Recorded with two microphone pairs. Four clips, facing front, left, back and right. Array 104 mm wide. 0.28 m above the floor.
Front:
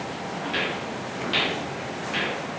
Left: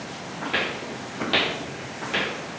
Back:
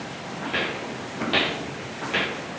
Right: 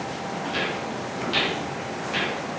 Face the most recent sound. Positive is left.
turn(degrees=130)